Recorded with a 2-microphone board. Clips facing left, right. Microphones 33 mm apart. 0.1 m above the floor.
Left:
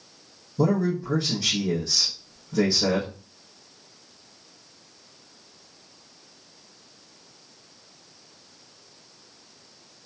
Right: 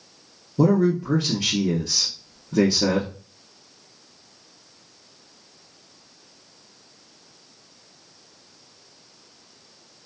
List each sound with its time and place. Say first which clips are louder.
0.6 s a man speaking: right 4 dB; 50° right (ahead or behind), 1.6 m